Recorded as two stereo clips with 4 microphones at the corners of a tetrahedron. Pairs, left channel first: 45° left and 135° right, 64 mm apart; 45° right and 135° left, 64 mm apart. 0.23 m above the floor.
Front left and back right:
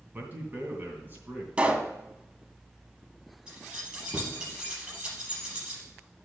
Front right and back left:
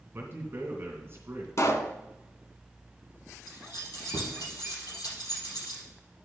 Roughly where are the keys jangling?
Ahead right.